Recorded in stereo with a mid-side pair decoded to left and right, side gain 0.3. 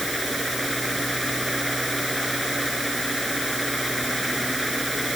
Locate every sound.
0.0 s a fan: 5° right